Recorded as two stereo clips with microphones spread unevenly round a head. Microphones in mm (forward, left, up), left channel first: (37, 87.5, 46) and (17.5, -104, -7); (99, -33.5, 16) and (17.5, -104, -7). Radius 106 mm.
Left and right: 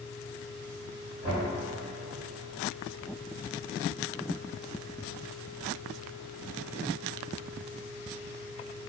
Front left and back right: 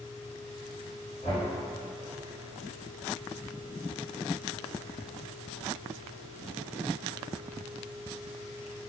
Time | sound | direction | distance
1.2 | knocking | 75° left | 1.3 m